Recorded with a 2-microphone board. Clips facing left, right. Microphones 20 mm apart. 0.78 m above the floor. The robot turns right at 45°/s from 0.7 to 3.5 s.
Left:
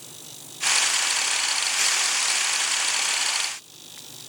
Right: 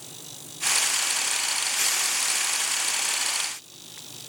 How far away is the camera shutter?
No camera shutter in this recording.